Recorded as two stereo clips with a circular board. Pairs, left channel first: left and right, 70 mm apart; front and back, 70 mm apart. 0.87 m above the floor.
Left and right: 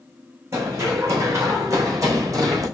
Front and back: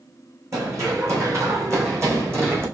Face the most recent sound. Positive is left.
turn(degrees=-125)